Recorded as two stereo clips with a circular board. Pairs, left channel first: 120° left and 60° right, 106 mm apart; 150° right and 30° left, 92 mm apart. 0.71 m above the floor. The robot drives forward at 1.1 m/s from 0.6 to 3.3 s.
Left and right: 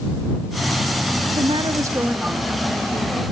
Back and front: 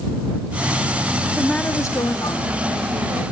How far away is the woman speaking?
About 0.9 m.